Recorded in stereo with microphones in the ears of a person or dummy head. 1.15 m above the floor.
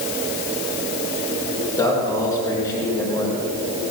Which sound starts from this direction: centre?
A man speaking, at 1.8 s.